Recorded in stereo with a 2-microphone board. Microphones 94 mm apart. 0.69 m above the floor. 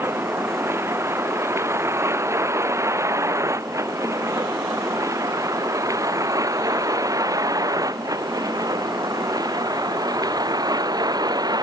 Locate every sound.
0.0 s a vehicle: 25° right (ahead or behind); by 11.6 s 45° right (ahead or behind)